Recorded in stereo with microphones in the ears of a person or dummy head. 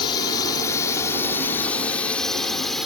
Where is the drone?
25° left (ahead or behind); by 2.9 s centre (ahead or behind).